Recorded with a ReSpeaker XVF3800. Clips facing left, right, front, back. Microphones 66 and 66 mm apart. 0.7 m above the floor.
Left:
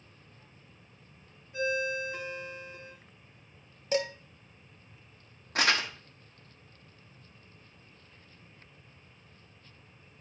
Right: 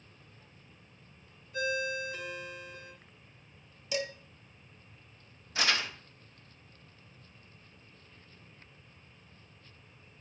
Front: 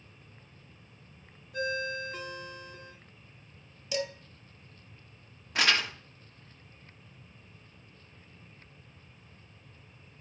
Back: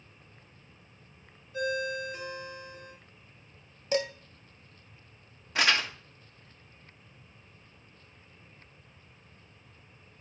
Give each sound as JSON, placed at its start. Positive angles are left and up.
{"t": 1.5, "sound": "a ringtone", "azimuth_deg": 25, "distance_m": 3.5}
{"t": 3.9, "sound": "dishes clattering", "azimuth_deg": 135, "distance_m": 1.2}
{"t": 5.5, "sound": "crumpling", "azimuth_deg": 90, "distance_m": 1.5}